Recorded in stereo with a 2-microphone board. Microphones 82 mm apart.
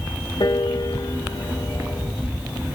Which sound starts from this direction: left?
A piano, at 0.4 s.